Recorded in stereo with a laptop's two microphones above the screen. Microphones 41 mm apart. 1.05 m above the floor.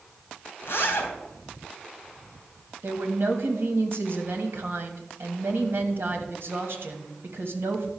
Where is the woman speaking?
65° right (ahead or behind), 1.5 m.